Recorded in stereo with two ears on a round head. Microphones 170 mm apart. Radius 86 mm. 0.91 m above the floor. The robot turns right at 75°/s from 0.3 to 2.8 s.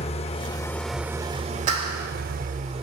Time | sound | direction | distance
0.0 | an engine running | 135° left | 0.7 m
1.7 | a clap | 40° right (ahead or behind) | 2.5 m